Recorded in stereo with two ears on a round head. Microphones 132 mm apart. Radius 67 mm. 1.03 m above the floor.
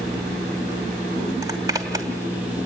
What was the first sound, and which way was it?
A zipper, 25° right (ahead or behind).